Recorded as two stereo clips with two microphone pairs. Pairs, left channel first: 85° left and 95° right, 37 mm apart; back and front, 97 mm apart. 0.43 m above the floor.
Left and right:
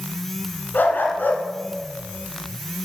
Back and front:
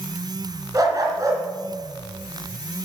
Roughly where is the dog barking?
Ahead left.